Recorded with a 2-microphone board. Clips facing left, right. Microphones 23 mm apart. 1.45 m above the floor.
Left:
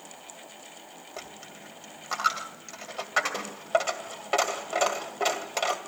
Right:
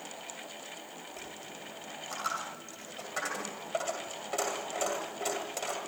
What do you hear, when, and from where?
1.2 s a dropped coin: 40° left (ahead or behind), 1.9 m